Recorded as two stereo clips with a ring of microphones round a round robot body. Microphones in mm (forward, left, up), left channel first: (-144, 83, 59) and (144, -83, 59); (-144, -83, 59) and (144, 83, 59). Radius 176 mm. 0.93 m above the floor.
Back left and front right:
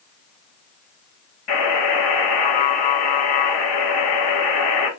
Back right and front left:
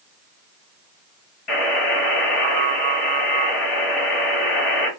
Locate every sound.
1.5 s a buzzer: 160° left, 2.5 m